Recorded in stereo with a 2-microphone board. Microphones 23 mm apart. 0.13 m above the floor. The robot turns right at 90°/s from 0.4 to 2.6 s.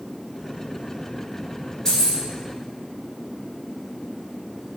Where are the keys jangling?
35° left, 1.3 m; by 2.2 s 65° left, 1.3 m.